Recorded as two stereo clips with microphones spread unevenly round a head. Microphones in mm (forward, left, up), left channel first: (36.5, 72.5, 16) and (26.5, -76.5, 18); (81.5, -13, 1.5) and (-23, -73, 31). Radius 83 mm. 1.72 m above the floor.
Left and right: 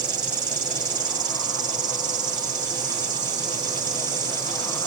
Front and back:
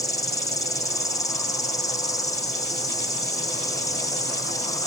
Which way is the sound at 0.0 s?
30° right.